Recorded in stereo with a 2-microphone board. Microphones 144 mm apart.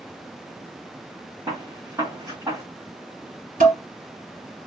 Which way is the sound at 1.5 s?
25° right (ahead or behind).